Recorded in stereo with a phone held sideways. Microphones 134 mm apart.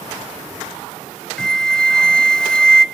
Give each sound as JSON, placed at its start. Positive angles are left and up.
{"t": 1.4, "sound": "a flute", "side_deg": 5, "distance_m": 0.7}